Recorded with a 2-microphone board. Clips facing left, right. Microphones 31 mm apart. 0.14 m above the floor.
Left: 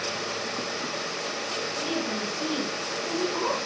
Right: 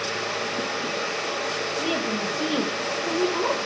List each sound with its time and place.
1.8 s a woman speaking: 35° right (ahead or behind), 4 m; by 3.6 s 20° right (ahead or behind), 4 m